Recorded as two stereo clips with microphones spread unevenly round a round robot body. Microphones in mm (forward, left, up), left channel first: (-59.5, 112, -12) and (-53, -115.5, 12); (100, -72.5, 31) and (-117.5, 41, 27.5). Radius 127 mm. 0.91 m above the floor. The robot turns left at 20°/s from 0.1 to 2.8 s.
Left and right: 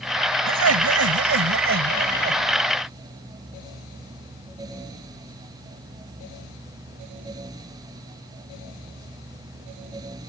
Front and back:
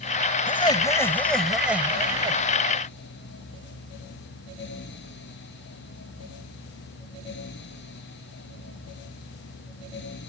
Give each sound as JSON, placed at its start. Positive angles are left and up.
{"t": 0.5, "sound": "laughter", "azimuth_deg": -95}